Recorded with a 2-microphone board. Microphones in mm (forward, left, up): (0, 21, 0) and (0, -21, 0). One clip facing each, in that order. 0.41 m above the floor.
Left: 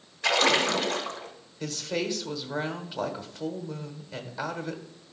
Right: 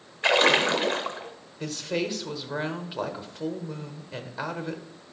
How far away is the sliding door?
No sliding door in this recording.